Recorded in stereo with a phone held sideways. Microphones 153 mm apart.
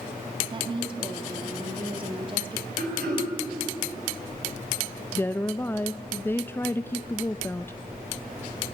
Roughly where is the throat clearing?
Right.